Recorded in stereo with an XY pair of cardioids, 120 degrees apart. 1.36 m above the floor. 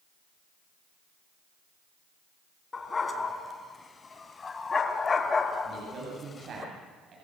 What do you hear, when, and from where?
2.7 s a dog barking: 25° left, 3.5 m; by 6.7 s 40° left, 1.6 m
5.7 s a man speaking: 45° right, 9 m